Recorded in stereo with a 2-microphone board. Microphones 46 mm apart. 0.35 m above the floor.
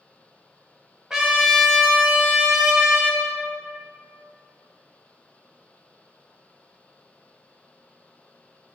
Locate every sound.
1.1 s a trumpet: 10° right (ahead or behind), 0.9 m